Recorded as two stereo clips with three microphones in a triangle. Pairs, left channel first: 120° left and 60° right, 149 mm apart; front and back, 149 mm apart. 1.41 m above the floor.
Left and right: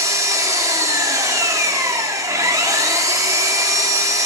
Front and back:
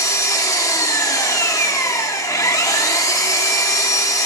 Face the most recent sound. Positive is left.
turn(degrees=-30)